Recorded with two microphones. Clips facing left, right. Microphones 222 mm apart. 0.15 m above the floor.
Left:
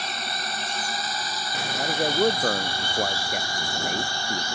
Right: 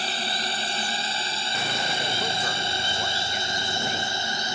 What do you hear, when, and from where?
0.0 s a drone: 30° right (ahead or behind); by 4.5 s 20° right (ahead or behind)
1.8 s a man speaking: 55° left (ahead or behind)